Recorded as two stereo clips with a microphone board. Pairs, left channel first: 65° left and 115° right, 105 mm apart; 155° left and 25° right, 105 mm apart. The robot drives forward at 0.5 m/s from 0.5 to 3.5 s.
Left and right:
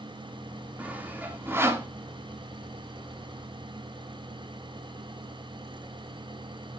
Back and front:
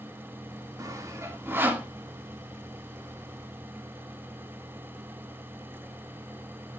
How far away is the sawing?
About 1.6 m.